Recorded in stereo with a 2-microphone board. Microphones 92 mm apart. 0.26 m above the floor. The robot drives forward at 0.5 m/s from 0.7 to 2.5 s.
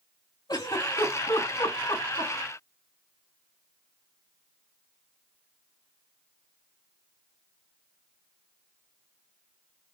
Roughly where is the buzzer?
No buzzer in this recording.